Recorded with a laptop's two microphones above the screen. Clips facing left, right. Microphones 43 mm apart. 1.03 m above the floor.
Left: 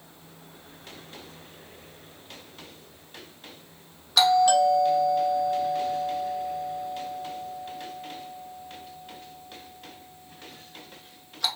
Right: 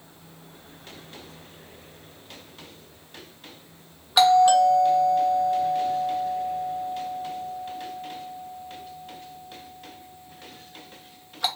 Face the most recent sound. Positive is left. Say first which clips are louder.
# right 3 dB
turn(degrees=-20)  # may be behind; listen again after turning